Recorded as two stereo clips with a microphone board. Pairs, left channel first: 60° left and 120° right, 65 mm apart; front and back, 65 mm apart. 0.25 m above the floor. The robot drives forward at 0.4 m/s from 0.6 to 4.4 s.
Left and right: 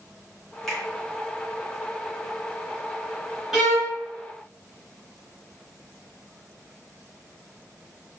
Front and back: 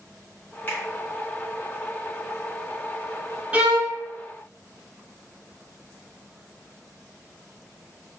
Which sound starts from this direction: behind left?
A violin, at 3.5 s.